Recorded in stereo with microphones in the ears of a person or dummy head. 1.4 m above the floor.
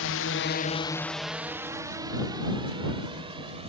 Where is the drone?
65° left (ahead or behind); by 3.7 s 30° right (ahead or behind).